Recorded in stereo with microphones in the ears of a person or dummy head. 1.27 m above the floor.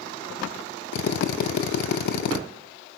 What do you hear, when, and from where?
0.9 s a drill: 60° left (ahead or behind), 1.3 m